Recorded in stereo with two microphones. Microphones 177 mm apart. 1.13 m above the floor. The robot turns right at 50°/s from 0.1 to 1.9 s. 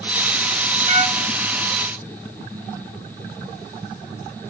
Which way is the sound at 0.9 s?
30° right (ahead or behind).